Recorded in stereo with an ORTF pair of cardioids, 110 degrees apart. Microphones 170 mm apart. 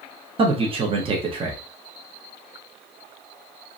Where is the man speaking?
35° right, 0.9 m.